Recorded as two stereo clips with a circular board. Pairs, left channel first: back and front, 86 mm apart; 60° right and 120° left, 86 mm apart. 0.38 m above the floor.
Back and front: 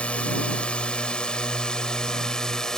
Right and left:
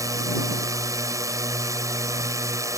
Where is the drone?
110° left; by 2.8 s 100° left.